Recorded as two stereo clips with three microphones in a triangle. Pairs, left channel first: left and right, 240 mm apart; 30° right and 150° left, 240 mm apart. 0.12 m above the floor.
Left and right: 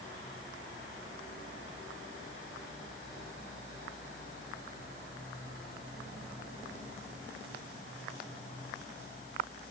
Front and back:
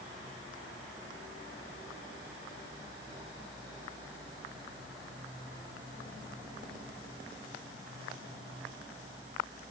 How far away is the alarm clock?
No alarm clock in this recording.